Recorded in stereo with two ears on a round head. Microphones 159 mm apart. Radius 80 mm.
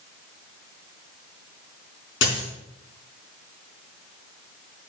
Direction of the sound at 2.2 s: 80° left.